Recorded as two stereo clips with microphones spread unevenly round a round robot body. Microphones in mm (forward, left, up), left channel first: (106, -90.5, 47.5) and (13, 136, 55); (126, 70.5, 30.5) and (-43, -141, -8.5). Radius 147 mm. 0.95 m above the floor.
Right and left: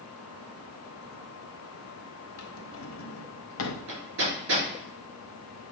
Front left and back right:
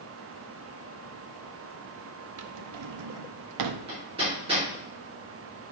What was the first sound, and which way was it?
A drawer, 110° right.